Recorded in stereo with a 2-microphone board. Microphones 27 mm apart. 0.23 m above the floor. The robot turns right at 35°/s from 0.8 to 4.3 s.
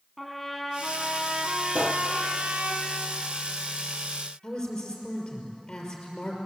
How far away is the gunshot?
About 2.5 m.